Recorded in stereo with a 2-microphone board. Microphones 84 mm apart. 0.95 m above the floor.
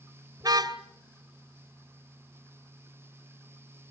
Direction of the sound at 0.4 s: 50° right (ahead or behind).